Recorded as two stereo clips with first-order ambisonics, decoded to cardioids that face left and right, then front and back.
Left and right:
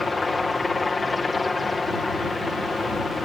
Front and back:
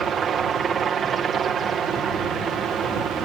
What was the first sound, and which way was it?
A helicopter, 155° left.